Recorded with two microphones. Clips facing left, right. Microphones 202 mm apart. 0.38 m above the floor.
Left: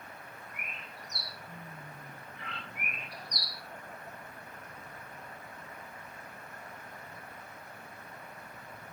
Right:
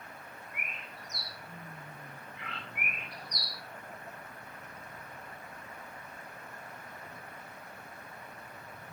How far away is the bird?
About 2 m.